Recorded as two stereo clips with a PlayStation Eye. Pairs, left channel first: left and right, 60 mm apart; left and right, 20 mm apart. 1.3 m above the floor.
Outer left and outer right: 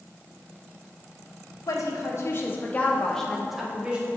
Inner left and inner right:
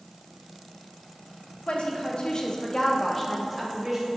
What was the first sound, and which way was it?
A woman speaking, 65° left (ahead or behind).